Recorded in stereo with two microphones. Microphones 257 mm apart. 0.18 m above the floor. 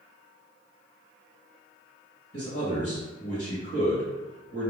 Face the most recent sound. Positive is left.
turn(degrees=45)  # may be behind; listen again after turning